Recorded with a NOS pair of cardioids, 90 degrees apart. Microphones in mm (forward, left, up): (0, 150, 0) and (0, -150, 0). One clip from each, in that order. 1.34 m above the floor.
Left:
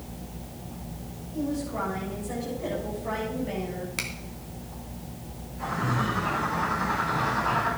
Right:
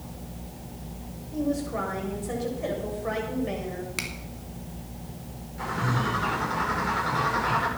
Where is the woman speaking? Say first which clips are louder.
Right 2 dB; 50° right, 7.5 m.